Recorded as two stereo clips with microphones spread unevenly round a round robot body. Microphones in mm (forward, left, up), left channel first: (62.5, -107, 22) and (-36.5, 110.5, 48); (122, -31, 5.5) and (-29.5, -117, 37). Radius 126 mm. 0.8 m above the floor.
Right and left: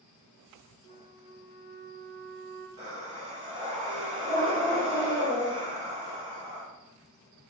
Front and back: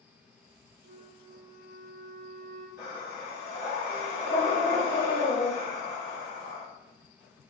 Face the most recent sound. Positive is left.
turn(degrees=75)